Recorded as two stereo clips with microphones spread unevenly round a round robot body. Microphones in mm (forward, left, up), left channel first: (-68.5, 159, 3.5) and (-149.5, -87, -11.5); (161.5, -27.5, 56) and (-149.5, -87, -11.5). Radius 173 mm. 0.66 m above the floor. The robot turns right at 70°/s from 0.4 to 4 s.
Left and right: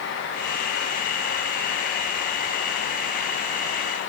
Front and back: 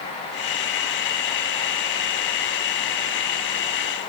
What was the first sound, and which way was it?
Only background noise.